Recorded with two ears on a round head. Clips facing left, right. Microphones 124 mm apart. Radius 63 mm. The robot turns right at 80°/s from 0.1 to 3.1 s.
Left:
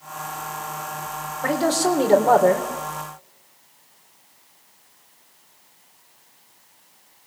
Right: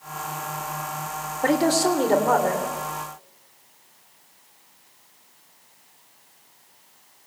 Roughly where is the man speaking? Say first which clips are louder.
Right 1 dB; ahead right.